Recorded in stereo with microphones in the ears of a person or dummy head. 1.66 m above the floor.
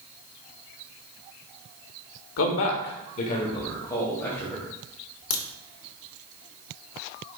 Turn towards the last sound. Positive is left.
turn(degrees=85)